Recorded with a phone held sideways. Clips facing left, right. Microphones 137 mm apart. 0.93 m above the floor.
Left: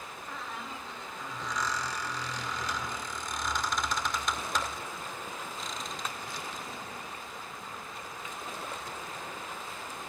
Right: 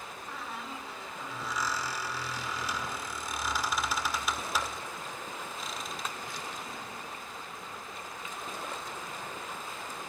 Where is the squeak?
5° right (ahead or behind), 1.9 m.